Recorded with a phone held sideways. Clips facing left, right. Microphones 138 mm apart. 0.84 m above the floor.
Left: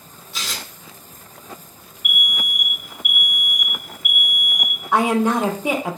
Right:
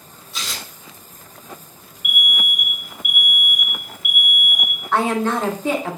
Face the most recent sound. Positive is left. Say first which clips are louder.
# left 2 dB
turn(degrees=15)  # may be behind; listen again after turning